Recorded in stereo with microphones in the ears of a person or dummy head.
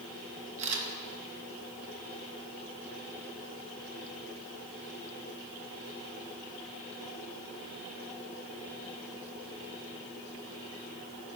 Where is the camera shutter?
40° right (ahead or behind), 2.5 m.